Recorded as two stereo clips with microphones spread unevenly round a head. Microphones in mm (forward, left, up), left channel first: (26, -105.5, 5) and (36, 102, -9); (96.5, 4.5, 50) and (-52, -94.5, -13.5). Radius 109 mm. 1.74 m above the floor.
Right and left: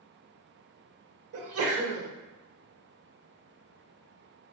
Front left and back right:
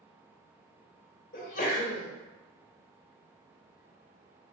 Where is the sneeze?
75° left, 1.0 m.